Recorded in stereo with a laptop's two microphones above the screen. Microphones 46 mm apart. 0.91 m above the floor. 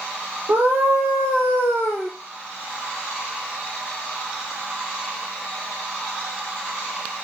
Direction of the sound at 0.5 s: 45° right (ahead or behind).